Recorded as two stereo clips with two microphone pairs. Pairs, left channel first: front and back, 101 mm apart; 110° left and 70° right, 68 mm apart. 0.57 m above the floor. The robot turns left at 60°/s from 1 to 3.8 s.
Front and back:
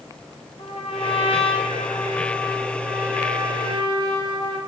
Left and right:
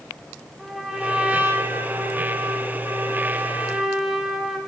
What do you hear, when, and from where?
0.6 s a trumpet: 15° left, 1.3 m; by 4.6 s 155° right, 1.3 m